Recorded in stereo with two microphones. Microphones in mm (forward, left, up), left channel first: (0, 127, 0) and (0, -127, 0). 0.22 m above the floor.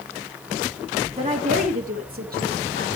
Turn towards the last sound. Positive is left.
turn(degrees=-45)  # may be behind; listen again after turning